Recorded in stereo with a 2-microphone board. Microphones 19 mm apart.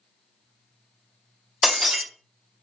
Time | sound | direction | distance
1.6 | breaking glass | 35° right (ahead or behind) | 0.7 m